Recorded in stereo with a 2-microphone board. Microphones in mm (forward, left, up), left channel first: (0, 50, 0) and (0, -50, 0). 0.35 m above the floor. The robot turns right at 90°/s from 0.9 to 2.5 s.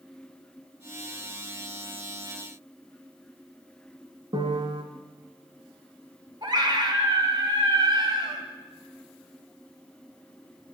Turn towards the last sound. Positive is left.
turn(degrees=-50)  # may be behind; listen again after turning